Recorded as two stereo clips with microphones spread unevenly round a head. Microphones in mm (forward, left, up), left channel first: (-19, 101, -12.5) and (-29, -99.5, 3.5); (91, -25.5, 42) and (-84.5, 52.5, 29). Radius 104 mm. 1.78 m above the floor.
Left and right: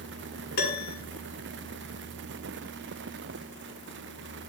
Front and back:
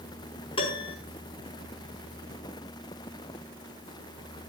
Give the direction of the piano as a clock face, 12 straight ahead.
11 o'clock.